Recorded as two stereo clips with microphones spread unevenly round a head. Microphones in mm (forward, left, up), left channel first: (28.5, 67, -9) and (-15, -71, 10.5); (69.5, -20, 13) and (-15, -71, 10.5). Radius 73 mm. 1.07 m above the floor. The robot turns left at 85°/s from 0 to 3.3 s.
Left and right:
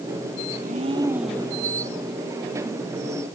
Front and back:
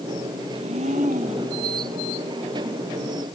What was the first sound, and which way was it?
A blender, 135° right.